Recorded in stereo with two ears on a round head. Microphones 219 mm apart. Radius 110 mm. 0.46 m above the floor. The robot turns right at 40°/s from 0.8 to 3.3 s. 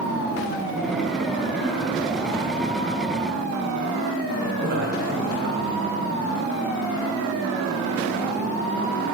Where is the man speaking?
45° right (ahead or behind), 2.5 m.